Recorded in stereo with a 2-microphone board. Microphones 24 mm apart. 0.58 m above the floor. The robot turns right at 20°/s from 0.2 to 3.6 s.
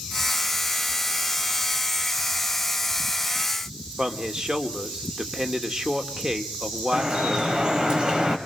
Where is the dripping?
35° right (ahead or behind), 2.5 m.